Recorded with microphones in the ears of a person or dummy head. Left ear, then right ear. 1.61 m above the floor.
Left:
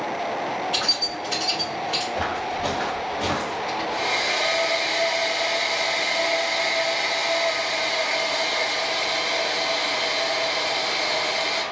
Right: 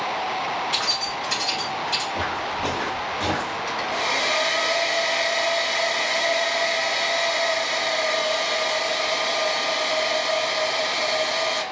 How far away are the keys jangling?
About 2 m.